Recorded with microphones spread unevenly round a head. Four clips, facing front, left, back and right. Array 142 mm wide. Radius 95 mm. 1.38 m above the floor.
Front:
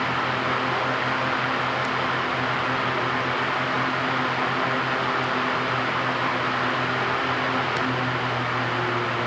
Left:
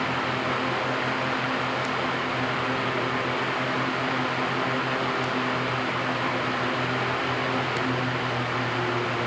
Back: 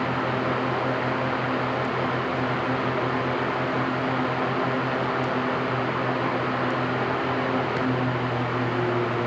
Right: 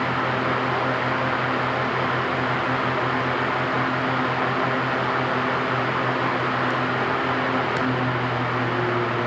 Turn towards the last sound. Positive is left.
No sound to turn to.